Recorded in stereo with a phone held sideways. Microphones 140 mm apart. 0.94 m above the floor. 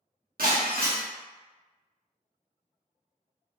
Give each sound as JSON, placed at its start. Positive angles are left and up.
{"t": 0.4, "sound": "breaking glass", "side_deg": -75, "distance_m": 1.1}